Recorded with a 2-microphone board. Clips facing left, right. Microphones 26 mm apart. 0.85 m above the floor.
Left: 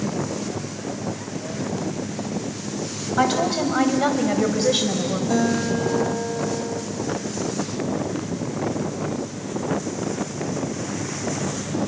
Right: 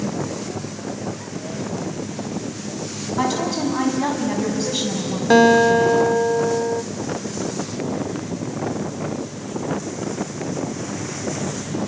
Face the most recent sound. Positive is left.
turn(degrees=-65)  # may be behind; listen again after turning